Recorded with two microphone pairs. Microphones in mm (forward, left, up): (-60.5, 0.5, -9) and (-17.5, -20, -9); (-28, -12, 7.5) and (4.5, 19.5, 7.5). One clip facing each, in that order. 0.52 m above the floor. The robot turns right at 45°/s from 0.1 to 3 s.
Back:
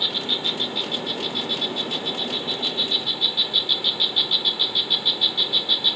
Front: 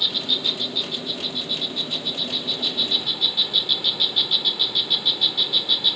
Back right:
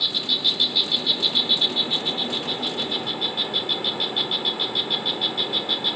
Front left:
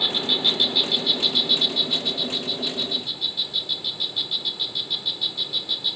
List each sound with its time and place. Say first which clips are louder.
0.0 s an insect: even, front left 2 dB; 95° left; by 6.0 s 130° right